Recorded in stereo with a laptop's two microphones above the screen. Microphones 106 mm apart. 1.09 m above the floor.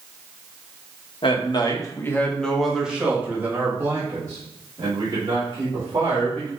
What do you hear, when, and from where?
1.2 s a man speaking: 55° left (ahead or behind), 1.4 m; by 6.5 s 45° right (ahead or behind), 4 m